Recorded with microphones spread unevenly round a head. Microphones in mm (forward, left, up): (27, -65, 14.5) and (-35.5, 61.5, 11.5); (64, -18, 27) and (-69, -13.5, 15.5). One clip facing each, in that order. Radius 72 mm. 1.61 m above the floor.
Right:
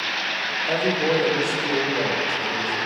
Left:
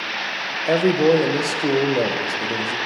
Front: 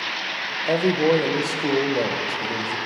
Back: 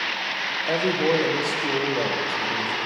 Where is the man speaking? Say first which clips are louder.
Left 6 dB, front 3 dB; 70° left, 1.5 m.